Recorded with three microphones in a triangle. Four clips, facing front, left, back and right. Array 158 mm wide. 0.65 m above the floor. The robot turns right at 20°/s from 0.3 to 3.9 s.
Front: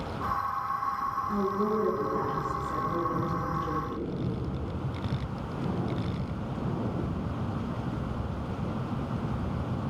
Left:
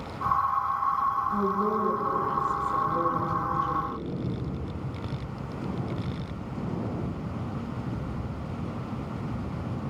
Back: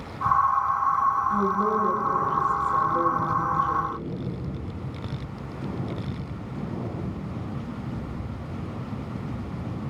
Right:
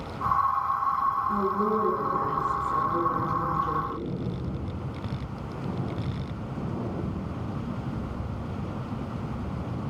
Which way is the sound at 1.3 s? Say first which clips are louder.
Right 1 dB, back 5 dB; 45° right.